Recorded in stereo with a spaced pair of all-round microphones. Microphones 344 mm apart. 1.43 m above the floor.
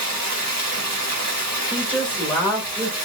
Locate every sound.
0.0 s running water: 50° right (ahead or behind), 1.7 m
1.7 s a woman speaking: 5° right (ahead or behind), 1.5 m